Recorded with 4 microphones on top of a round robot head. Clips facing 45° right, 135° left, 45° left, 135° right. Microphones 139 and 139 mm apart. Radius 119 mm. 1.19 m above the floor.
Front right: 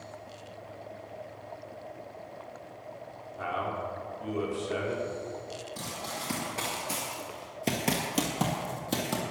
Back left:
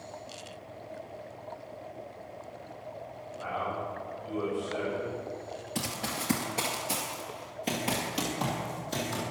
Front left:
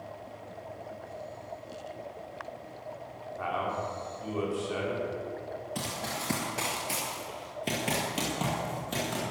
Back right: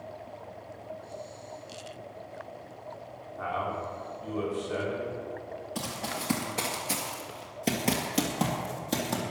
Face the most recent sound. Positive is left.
turn(degrees=-80)